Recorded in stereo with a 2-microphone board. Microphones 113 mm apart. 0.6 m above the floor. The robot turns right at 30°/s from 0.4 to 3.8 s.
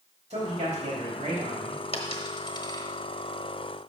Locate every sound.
0.3 s a man speaking: 105° right, 4 m; by 1.8 s 60° right, 4 m
1.9 s a dropped coin: 55° left (ahead or behind), 0.9 m; by 2.9 s 30° left (ahead or behind), 0.9 m